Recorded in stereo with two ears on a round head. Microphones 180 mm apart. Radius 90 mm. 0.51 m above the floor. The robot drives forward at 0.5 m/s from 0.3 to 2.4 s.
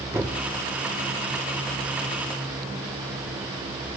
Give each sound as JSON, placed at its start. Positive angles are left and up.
{"t": 0.1, "sound": "a thud", "side_deg": -15, "distance_m": 4.0}